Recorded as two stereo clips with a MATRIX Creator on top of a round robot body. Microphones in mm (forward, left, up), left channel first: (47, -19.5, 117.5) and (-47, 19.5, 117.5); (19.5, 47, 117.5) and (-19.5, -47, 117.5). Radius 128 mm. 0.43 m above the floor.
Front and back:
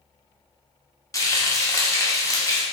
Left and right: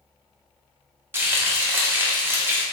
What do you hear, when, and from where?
1.1 s frying: 55° right, 0.8 m